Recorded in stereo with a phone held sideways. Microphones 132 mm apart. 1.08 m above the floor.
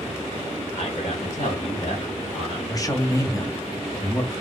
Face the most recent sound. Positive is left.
turn(degrees=25)  # may be behind; listen again after turning